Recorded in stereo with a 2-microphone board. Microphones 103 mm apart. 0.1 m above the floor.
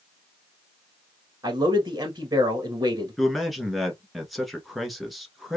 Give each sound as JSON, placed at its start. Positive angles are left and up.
{"t": 1.4, "sound": "a man speaking", "side_deg": -35, "distance_m": 1.4}
{"t": 3.2, "sound": "a man speaking", "side_deg": 0, "distance_m": 1.2}